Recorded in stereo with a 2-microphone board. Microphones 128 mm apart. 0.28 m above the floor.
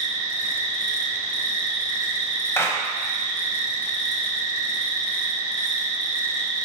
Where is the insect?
80° left, 1.4 m.